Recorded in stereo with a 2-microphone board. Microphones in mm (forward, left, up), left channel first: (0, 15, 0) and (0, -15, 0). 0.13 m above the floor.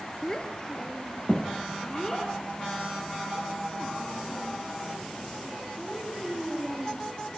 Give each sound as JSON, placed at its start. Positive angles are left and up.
{"t": 0.2, "sound": "a child speaking", "side_deg": 25, "distance_m": 1.8}